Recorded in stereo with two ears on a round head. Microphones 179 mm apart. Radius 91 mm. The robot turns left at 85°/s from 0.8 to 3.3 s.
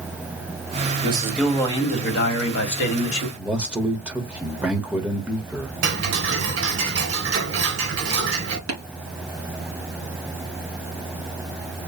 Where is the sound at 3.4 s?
5° right (ahead or behind), 1.2 m.